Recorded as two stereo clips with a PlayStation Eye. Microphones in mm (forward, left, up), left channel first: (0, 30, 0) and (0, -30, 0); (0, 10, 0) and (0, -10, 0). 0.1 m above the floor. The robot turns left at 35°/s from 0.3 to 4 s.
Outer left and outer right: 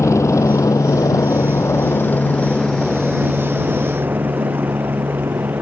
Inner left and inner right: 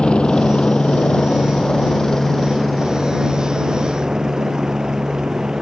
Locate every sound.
0.0 s a helicopter: 55° left (ahead or behind); by 5.6 s 40° right (ahead or behind)